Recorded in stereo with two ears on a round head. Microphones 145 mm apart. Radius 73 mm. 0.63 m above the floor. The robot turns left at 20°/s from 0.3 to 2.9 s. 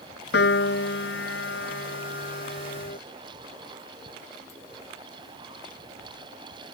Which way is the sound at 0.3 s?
100° left.